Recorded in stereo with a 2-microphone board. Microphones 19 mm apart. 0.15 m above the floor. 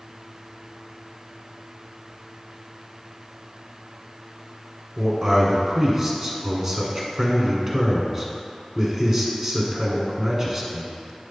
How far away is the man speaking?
About 1.3 m.